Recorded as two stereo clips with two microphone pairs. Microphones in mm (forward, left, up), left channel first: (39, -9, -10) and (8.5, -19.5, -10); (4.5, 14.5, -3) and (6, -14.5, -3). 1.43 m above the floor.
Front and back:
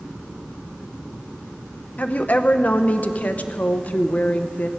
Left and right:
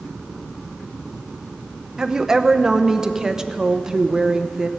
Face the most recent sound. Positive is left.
turn(degrees=-20)